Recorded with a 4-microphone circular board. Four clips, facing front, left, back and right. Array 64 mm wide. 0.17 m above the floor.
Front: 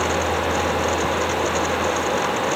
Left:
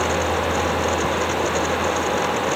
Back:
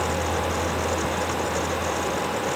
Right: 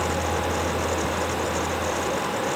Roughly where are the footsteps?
I don't hear footsteps.